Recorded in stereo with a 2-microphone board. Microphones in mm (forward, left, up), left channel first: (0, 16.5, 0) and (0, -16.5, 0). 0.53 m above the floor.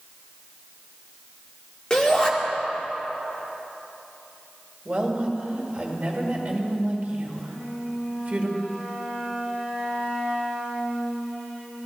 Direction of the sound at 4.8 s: 55° right (ahead or behind).